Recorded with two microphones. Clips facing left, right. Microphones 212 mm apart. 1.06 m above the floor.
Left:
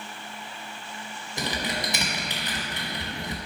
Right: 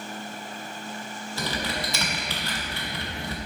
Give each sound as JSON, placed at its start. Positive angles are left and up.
{"t": 1.4, "sound": "typing on a keyboard", "side_deg": 15, "distance_m": 0.9}